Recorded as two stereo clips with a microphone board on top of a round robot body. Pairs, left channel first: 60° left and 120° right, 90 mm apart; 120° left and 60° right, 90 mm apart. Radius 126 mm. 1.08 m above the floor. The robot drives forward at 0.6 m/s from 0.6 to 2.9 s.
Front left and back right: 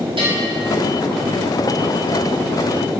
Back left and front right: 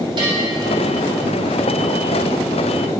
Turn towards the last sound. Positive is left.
turn(degrees=-115)